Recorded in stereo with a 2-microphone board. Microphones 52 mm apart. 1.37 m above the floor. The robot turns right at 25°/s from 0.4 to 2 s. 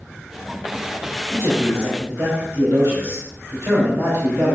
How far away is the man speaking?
About 3 m.